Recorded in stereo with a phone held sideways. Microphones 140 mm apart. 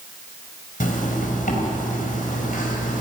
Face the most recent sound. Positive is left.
turn(degrees=70)  # may be behind; listen again after turning